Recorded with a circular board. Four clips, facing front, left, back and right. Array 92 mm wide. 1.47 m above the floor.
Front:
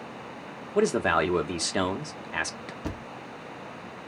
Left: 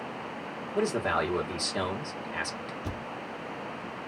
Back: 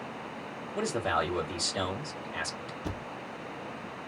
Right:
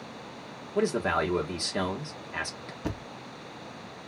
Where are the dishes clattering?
No dishes clattering in this recording.